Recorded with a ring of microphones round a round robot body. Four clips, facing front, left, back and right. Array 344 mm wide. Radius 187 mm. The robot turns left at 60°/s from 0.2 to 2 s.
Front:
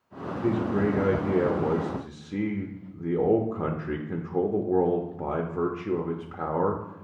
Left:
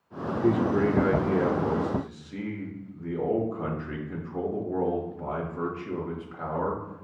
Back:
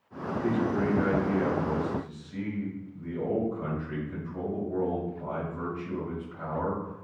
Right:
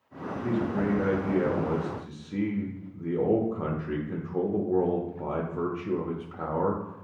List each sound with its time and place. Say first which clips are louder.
0.4 s a man speaking: left 5 dB, front 2 dB; 75° left, 0.6 m; by 7.0 s 20° right, 0.6 m